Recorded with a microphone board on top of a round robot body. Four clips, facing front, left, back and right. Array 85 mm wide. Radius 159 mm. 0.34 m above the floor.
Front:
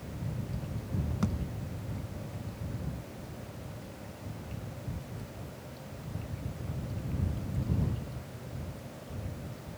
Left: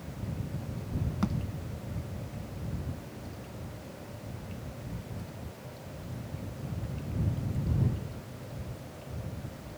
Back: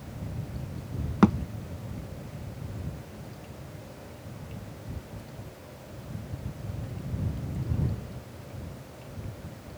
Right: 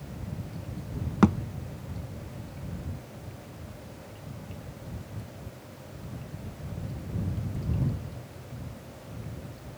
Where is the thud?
140° right.